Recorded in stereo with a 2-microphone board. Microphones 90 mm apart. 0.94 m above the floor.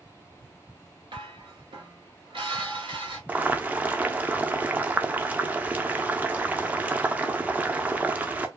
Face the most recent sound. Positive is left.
turn(degrees=-20)  # may be behind; listen again after turning